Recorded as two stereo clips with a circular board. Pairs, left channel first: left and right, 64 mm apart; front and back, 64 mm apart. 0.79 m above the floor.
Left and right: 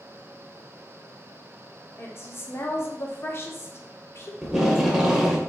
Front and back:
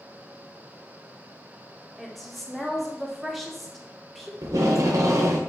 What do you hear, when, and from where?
2.0 s a woman speaking: 85° left, 0.6 m
4.4 s tape being pulled: 165° right, 0.5 m